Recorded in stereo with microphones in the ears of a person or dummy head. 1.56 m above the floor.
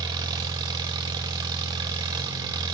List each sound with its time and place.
0.0 s an engine running: 20° right (ahead or behind), 0.9 m